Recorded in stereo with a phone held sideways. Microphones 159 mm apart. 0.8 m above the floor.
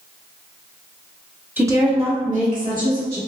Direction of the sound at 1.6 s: 10° right (ahead or behind).